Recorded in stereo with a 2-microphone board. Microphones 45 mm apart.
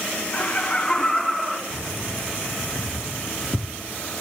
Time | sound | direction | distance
0.3 | laughter | 40° left (ahead or behind) | 1.8 m
1.7 | keys jangling | 10° right (ahead or behind) | 1.6 m